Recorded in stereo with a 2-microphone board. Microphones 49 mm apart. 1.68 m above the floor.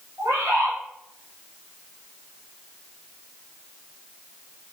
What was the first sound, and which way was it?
A bird, 75° right (ahead or behind).